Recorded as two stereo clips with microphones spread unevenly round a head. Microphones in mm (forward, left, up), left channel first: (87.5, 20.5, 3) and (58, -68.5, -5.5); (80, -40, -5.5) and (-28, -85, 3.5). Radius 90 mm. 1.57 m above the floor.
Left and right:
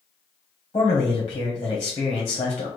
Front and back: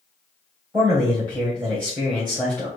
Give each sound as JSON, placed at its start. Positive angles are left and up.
{"t": 0.7, "sound": "a man speaking", "azimuth_deg": 135, "distance_m": 0.9}